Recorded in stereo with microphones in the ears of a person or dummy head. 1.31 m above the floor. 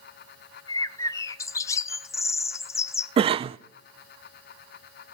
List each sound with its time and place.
0.7 s a bird: 20° left (ahead or behind), 0.6 m
3.2 s a cough: 35° right (ahead or behind), 0.6 m